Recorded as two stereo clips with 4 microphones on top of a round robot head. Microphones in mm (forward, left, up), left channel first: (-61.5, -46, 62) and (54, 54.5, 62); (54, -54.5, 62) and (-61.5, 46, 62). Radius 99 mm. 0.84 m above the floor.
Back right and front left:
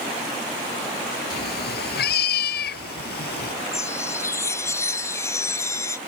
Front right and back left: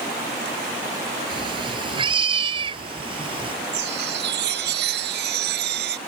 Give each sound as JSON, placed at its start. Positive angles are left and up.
{"t": 1.3, "sound": "a cat meowing", "azimuth_deg": -160}
{"t": 3.7, "sound": "a chime", "azimuth_deg": 150}